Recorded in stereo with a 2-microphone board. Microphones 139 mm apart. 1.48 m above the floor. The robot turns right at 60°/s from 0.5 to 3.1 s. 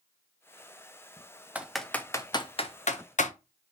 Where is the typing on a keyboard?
10° right (ahead or behind), 0.5 m; by 3.3 s 60° left (ahead or behind), 0.5 m.